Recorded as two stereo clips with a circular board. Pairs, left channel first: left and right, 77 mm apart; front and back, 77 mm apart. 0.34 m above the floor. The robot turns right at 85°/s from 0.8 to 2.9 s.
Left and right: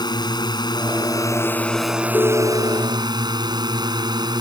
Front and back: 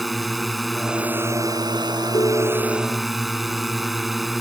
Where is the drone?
90° left; by 4.4 s 90° right.